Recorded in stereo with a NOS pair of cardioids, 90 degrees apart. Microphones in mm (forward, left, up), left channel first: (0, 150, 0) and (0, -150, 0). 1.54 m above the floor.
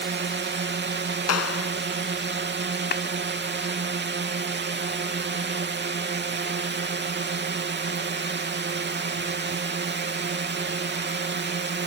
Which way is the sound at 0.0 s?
40° right.